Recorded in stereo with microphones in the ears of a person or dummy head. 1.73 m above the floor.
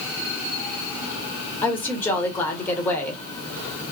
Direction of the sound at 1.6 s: 10° left (ahead or behind).